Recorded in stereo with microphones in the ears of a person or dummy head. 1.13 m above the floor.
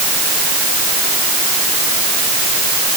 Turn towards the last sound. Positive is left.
No sound to turn to.